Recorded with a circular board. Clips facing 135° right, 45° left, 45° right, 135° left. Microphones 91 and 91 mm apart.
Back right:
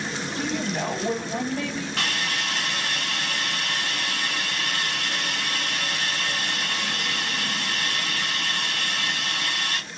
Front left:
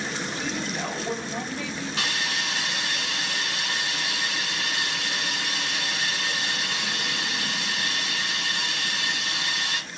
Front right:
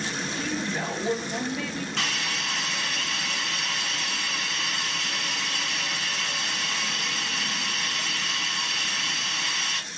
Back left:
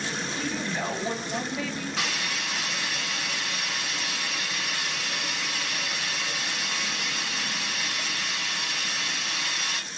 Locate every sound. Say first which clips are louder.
0.4 s a woman speaking: back right 6 dB, front right 1 dB; 140° right, 2 m
2.0 s a hiss: even, front right 1 dB; 145° right, 2.5 m